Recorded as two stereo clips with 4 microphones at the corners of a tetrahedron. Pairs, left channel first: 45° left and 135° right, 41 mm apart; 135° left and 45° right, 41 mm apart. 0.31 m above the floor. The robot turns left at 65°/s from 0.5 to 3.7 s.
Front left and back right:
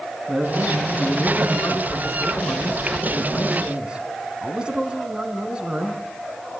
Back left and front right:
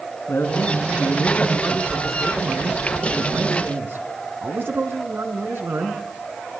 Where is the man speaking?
140° left, 3.5 m; by 6.0 s 70° right, 3.5 m.